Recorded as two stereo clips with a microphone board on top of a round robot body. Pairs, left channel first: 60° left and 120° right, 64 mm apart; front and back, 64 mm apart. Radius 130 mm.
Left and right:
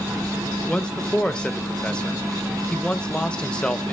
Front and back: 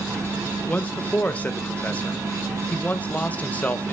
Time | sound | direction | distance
0.7 | a man speaking | 10° left | 1.1 m